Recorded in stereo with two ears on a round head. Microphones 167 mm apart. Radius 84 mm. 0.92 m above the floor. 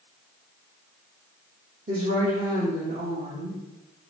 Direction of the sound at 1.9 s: 40° right (ahead or behind).